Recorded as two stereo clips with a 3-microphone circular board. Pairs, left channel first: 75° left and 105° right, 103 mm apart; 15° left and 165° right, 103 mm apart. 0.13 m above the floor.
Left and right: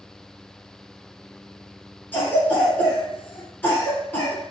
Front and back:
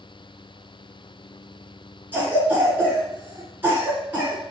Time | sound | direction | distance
2.1 | a cough | 135° left | 1.5 m